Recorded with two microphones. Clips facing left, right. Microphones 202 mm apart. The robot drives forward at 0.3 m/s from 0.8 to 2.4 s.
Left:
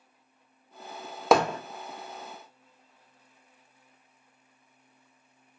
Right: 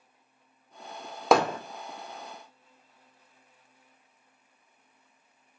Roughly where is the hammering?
Centre.